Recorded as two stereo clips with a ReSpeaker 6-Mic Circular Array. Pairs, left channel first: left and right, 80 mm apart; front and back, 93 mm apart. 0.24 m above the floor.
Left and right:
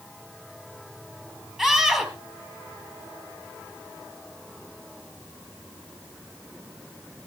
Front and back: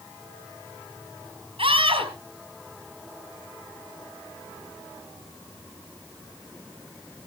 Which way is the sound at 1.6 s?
175° right.